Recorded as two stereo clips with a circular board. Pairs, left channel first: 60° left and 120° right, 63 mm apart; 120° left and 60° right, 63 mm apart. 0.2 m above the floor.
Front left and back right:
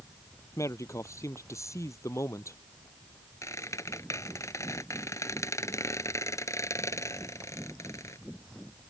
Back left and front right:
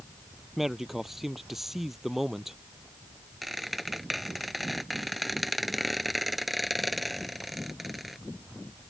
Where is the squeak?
30° left.